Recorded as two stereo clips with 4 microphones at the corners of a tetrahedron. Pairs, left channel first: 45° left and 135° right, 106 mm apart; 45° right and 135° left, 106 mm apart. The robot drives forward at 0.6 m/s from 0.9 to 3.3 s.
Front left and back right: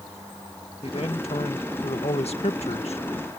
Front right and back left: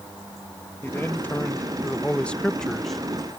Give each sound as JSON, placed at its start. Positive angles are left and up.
{"t": 0.8, "sound": "a man speaking", "azimuth_deg": 25}